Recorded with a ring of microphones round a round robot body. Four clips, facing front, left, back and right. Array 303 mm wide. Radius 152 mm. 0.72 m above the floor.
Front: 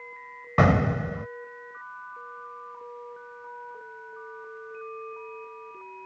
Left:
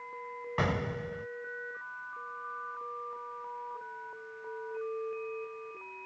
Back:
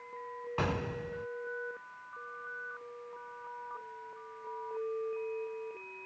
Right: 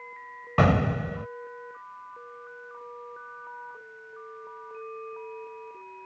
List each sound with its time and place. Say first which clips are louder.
0.6 s an explosion: right 10 dB, front 13 dB; 35° right